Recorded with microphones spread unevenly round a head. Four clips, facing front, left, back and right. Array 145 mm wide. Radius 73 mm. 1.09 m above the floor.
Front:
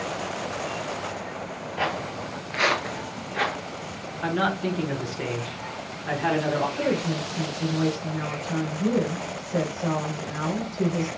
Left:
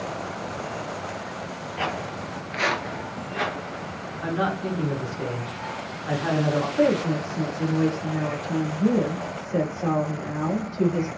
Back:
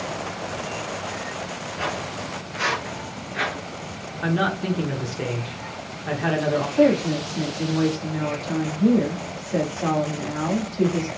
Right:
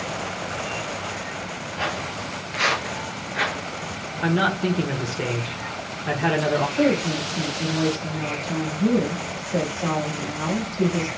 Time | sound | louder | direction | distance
1.8 | footsteps | even, front 1 dB | 40° left | 1.6 m
4.2 | a man speaking | right 4 dB, back 2 dB | 105° right | 1.5 m
6.8 | a woman speaking | even, back 7 dB | 175° right | 1.8 m